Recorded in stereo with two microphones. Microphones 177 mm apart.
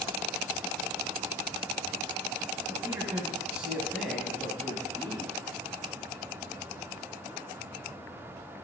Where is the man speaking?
20° right (ahead or behind), 1.2 m; by 5.3 s 10° left (ahead or behind), 1.9 m.